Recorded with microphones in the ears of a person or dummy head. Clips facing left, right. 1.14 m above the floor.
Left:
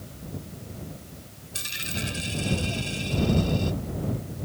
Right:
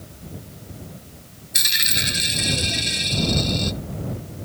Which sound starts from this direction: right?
A dropped coin, at 1.5 s.